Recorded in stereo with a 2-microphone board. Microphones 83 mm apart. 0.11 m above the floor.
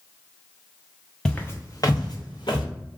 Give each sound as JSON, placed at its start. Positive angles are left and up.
{"t": 1.2, "sound": "footsteps", "side_deg": 10, "distance_m": 0.6}